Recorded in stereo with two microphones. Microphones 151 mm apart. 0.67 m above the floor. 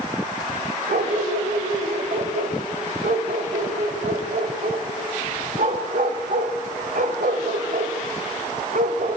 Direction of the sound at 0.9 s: 65° right (ahead or behind).